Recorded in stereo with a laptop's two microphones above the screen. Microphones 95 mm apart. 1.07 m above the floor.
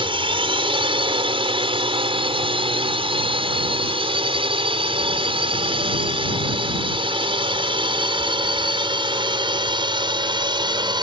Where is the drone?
70° right (ahead or behind); by 11.0 s 55° right (ahead or behind).